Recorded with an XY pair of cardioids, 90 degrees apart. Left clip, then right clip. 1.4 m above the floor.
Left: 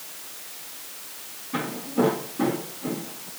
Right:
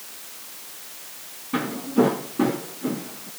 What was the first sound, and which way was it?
Footsteps, 50° right.